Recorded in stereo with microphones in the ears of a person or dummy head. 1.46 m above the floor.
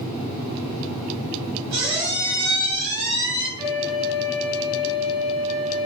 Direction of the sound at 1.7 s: 45° right (ahead or behind).